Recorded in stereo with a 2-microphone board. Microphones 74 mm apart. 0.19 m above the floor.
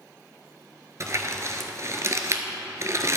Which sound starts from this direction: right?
Crumpling, at 1.0 s.